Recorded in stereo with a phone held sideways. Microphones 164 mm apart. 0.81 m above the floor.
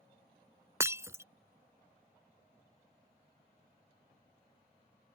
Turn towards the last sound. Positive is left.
turn(degrees=-15)  # may be behind; listen again after turning